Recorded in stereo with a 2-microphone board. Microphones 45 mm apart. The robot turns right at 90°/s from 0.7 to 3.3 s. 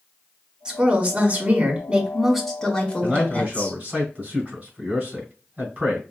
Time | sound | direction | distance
0.7 | a woman speaking | 150° right | 1.3 m
3.0 | a man speaking | 5° right (ahead or behind) | 2.5 m